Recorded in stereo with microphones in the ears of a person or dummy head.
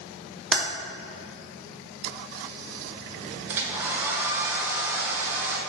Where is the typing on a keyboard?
Centre (ahead or behind), 1.0 m.